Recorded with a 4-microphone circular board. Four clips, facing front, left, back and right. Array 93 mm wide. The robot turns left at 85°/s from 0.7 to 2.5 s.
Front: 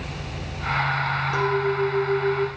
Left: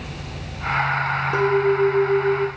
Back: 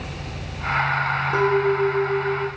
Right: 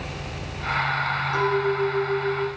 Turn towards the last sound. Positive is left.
turn(degrees=30)